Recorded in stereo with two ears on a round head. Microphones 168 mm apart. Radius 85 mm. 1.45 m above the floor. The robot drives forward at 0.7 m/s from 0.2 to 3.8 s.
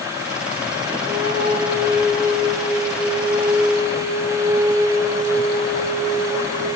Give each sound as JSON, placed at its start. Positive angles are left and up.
{"t": 1.0, "sound": "a flute", "side_deg": -60, "distance_m": 2.0}